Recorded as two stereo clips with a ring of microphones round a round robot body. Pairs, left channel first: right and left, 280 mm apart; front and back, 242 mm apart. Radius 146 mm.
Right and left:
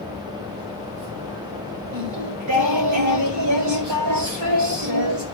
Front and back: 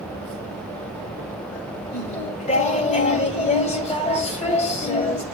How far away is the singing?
About 2 m.